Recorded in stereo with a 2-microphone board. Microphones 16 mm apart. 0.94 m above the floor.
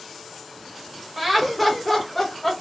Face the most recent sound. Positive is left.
turn(degrees=10)  # may be behind; listen again after turning